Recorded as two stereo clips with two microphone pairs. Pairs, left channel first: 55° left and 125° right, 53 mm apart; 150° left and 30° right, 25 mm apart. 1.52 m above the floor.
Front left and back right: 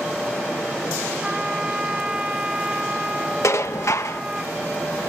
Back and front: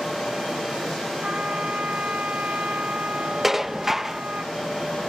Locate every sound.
1.2 s a trumpet: 50° right
3.4 s dishes clattering: 45° left